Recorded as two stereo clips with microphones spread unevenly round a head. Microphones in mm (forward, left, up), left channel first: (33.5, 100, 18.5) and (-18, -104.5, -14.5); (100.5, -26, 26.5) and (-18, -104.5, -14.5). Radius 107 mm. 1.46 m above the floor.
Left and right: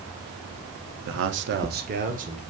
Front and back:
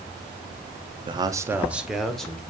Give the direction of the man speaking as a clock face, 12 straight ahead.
3 o'clock.